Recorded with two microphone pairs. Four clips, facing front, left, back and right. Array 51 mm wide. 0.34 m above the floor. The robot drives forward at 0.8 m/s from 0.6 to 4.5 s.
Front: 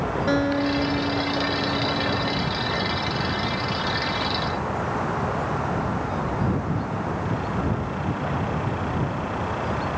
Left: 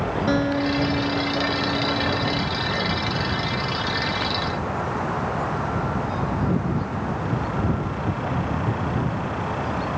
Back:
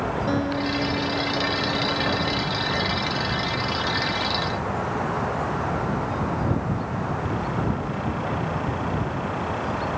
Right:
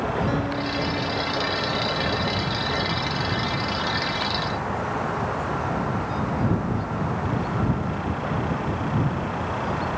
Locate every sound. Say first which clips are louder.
0.3 s a guitar: left 4 dB, front 5 dB; 25° left; by 2.5 s 105° left